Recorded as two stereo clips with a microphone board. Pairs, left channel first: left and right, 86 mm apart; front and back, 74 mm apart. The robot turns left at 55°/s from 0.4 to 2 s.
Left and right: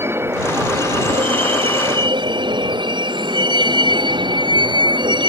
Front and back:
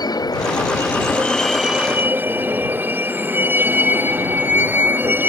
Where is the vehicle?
30° right; by 5.3 s 115° right.